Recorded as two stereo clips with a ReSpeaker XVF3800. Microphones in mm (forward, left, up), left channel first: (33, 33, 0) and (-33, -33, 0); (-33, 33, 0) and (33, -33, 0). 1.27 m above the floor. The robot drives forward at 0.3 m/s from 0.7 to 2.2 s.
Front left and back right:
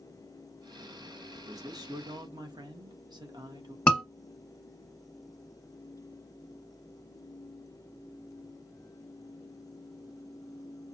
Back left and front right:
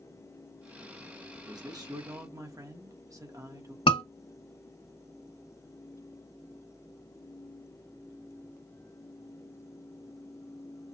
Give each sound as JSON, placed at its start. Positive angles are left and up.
{"t": 1.4, "sound": "a man speaking", "azimuth_deg": -85, "distance_m": 1.2}
{"t": 3.9, "sound": "a scream", "azimuth_deg": 120, "distance_m": 1.1}